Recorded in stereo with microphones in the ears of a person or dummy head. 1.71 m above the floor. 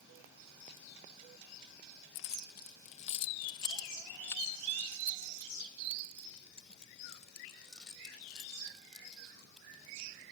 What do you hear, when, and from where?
2.1 s keys jangling: 65° left (ahead or behind); by 9.6 s 5° left (ahead or behind)